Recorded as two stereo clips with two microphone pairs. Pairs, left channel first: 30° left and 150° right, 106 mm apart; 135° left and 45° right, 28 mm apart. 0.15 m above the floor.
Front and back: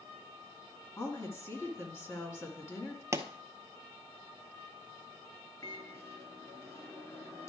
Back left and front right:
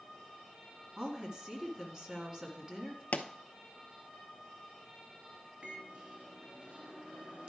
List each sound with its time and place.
1.0 s a woman speaking: 5° right, 1.8 m
3.1 s a pop: 145° left, 0.7 m
5.6 s a microwave: 20° right, 1.6 m